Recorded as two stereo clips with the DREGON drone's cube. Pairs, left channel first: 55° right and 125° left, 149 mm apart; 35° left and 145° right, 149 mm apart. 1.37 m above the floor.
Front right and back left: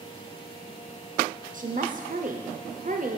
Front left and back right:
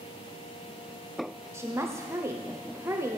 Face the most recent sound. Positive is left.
turn(degrees=145)